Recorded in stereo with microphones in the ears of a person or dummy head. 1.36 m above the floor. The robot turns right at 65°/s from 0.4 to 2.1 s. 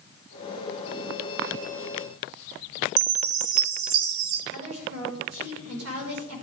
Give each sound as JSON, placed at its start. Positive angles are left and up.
{"t": 3.0, "sound": "a chime", "side_deg": -75, "distance_m": 1.2}
{"t": 4.5, "sound": "a woman speaking", "side_deg": -75, "distance_m": 5.5}